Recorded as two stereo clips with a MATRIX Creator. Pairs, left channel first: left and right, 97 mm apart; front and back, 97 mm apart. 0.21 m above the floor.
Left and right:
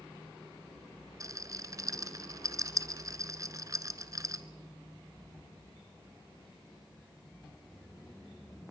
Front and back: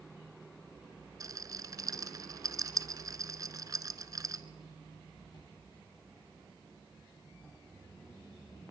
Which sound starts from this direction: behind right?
A rattle, at 1.2 s.